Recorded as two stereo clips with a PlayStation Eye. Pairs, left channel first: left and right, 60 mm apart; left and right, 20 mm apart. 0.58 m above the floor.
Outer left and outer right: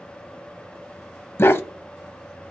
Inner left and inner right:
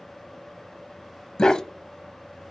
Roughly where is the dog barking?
Left.